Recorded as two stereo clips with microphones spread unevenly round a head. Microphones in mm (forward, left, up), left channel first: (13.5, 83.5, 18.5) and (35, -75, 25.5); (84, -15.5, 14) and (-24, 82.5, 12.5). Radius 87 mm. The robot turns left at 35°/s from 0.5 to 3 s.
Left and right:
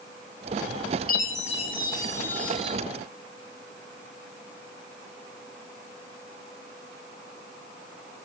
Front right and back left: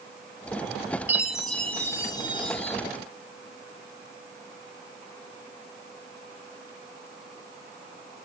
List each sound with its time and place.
1.1 s a chime: 60° left, 1.9 m; by 2.8 s straight ahead, 1.9 m